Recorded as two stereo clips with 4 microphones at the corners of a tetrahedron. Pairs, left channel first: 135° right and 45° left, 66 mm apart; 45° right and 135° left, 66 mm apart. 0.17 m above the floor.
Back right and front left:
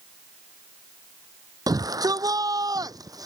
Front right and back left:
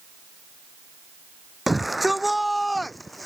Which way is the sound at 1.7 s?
45° left.